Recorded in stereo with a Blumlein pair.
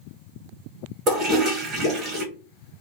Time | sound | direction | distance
1.1 | a toilet flushing | 25° right | 1.2 m